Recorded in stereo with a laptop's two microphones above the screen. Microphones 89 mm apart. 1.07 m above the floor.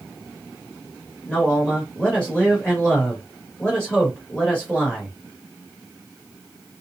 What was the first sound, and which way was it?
A man speaking, 15° left (ahead or behind).